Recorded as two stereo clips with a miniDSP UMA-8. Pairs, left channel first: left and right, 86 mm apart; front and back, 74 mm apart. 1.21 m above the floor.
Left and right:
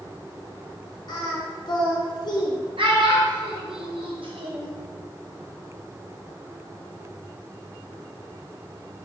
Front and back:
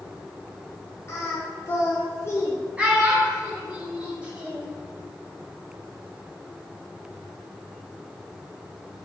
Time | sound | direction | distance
1.1 | singing | 55° left | 0.6 m
2.8 | a child speaking | 105° right | 0.9 m